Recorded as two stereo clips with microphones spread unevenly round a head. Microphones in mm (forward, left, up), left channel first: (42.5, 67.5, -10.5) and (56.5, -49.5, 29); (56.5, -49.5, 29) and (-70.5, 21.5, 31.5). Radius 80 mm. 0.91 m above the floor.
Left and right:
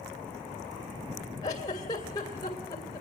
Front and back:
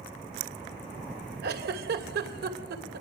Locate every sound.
1.4 s a giggle: 165° left, 2.5 m